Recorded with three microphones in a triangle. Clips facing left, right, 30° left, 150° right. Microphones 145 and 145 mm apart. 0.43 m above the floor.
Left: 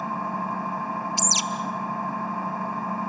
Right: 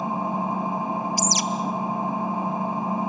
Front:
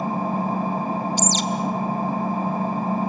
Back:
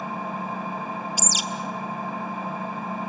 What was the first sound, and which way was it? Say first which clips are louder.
An engine running: right 3 dB, front 7 dB; 20° right.